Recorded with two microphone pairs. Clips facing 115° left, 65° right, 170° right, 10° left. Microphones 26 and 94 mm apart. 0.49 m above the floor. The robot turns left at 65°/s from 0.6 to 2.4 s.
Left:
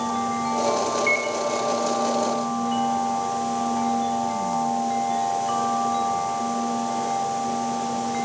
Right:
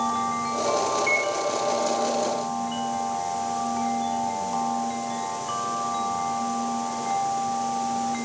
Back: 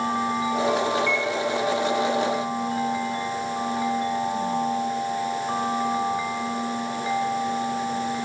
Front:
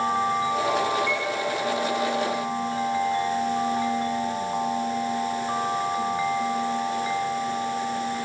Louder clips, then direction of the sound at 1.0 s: Left 1 dB, back 2 dB; 170° right.